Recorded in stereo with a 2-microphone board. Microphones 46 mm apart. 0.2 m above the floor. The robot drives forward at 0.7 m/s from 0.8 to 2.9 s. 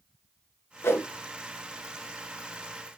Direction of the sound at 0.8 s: 65° left (ahead or behind).